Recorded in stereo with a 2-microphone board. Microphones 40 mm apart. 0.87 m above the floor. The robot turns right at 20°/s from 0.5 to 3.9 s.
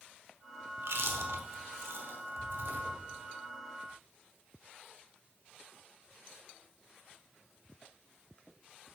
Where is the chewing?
70° right (ahead or behind), 1.0 m; by 2.9 s 55° right (ahead or behind), 1.0 m.